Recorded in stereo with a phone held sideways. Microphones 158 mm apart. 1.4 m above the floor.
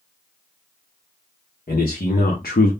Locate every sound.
1.7 s a man speaking: 70° left (ahead or behind), 1.3 m; by 2.7 s 65° left (ahead or behind), 0.6 m